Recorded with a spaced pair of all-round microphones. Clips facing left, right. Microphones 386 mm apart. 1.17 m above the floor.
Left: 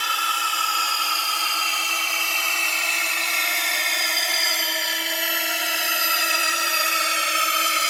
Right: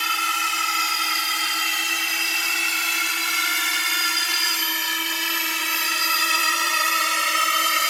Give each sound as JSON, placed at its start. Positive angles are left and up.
{"t": 0.0, "sound": "a drone", "side_deg": -40}